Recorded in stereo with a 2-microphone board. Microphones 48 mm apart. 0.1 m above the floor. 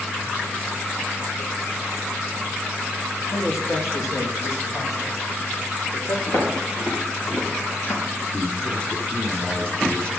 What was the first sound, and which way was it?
A man speaking, 70° left (ahead or behind).